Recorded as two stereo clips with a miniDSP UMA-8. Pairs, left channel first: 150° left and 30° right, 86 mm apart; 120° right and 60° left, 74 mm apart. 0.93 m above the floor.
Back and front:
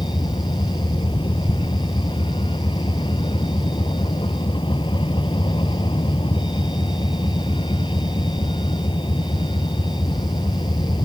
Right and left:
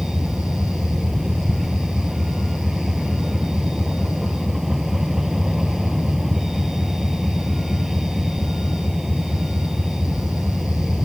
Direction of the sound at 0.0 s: 145° left.